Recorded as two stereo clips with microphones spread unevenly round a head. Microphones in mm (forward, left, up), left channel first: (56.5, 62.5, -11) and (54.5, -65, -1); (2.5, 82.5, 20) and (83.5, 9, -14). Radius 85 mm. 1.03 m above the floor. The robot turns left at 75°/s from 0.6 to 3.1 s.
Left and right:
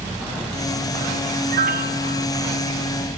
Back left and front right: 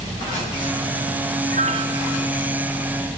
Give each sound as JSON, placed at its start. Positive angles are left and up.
{"t": 1.5, "sound": "a piano", "azimuth_deg": -80, "distance_m": 1.9}